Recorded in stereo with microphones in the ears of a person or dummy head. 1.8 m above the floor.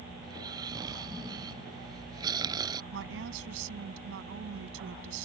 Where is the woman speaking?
85° right.